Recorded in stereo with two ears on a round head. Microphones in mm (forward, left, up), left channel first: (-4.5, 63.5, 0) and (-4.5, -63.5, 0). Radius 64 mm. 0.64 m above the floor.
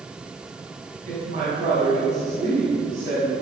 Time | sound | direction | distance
1.1 | a woman speaking | 55° right (ahead or behind) | 6 m